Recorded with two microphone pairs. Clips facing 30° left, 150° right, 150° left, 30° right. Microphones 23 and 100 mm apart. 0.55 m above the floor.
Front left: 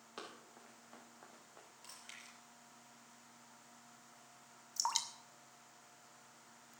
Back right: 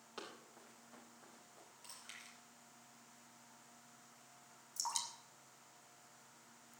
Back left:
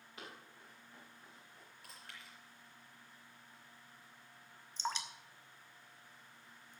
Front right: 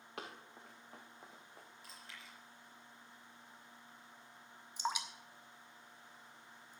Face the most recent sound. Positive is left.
turn(degrees=40)